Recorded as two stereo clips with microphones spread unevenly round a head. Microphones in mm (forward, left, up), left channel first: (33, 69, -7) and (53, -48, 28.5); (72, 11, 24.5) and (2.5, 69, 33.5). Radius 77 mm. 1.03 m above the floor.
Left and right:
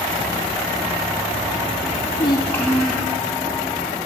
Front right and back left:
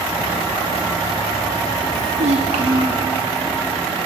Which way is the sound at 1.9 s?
130° left.